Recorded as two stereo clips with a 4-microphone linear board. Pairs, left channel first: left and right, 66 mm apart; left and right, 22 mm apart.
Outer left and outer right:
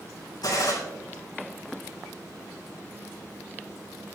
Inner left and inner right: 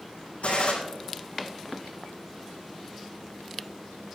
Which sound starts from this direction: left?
A gunshot, at 0.4 s.